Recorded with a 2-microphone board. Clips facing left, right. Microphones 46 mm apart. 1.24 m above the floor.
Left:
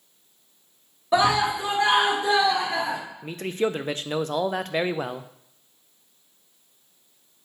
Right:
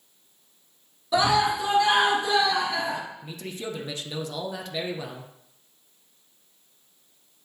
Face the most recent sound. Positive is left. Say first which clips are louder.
# left 9 dB
turn(degrees=45)  # may be behind; listen again after turning